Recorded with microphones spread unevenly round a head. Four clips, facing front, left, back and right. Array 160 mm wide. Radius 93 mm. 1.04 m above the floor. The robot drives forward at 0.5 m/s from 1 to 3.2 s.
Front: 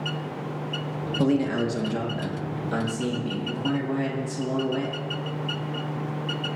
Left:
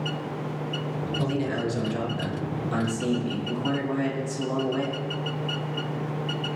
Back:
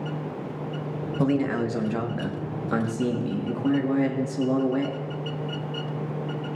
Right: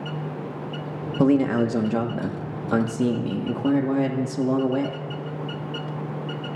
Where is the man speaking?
75° right, 1.3 m; by 5.0 s 120° right, 1.4 m.